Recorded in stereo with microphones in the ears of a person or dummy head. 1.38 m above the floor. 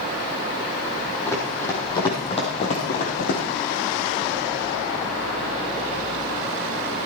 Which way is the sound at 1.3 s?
10° left (ahead or behind).